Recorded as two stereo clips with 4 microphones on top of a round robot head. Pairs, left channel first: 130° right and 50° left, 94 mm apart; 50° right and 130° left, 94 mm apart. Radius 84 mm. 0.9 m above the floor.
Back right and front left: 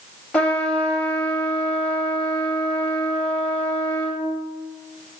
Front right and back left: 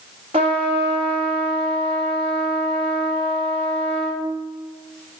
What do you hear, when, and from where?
0.3 s a trumpet: 155° left, 0.9 m